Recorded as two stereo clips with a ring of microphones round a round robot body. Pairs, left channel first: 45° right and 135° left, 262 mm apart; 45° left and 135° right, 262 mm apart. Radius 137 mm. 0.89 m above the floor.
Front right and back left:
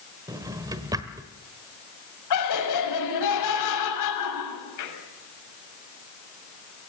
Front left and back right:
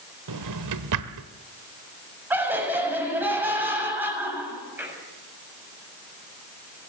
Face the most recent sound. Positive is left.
turn(degrees=-50)